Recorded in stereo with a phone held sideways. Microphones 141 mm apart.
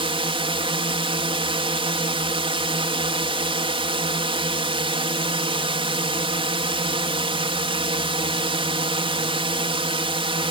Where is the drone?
40° right (ahead or behind).